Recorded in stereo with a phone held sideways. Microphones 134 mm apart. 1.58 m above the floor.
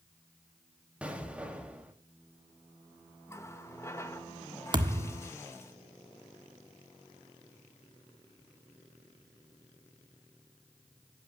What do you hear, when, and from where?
1.0 s an explosion: 10° right (ahead or behind), 2.5 m
3.3 s a running tap: 20° left (ahead or behind), 1.5 m
4.7 s a thud: 35° right (ahead or behind), 1.4 m